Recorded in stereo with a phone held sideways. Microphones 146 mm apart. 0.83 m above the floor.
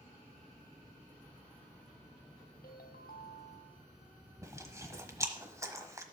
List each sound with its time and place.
2.6 s a ringtone: 80° left, 1.0 m
4.4 s chewing: 20° right (ahead or behind), 1.1 m